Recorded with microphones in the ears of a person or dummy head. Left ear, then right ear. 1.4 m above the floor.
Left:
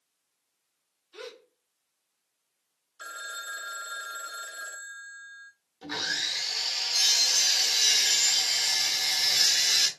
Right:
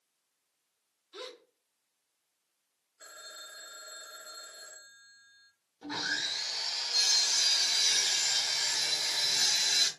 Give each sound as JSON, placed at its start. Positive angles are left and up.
{"t": 1.1, "sound": "a gasp", "side_deg": -15, "distance_m": 0.7}
{"t": 3.0, "sound": "a phone ringing", "side_deg": 45, "distance_m": 0.5}
{"t": 5.8, "sound": "sawing", "side_deg": 10, "distance_m": 0.8}